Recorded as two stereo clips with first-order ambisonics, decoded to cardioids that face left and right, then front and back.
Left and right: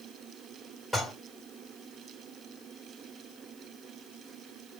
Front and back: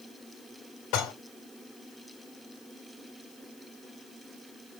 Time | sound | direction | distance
0.9 | dishes clattering | 5° right | 1.7 m